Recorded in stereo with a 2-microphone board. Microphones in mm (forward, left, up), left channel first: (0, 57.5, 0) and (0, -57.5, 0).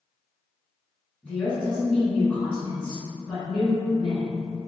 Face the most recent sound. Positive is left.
turn(degrees=10)  # may be behind; listen again after turning